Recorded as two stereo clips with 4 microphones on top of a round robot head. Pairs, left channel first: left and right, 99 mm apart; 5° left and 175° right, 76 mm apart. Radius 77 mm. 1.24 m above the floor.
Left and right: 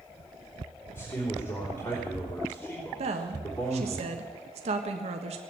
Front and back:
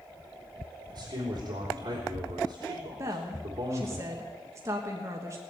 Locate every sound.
0.9 s a man speaking: 155° left, 4 m
3.0 s a woman speaking: 110° right, 1.3 m